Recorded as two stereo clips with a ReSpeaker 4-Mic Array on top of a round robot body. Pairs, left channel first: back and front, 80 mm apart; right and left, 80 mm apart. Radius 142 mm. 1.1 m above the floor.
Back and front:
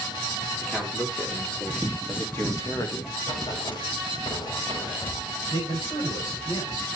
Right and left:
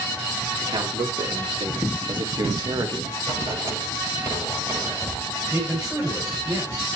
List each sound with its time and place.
0.6 s a man speaking: 100° left, 4 m; by 3.1 s 145° left, 1.6 m
3.2 s writing: 145° left, 8 m
5.5 s a man speaking: 160° left, 7.5 m